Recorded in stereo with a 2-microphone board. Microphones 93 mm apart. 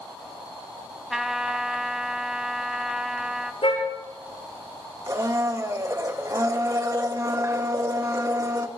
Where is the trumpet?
5° right (ahead or behind), 0.9 m.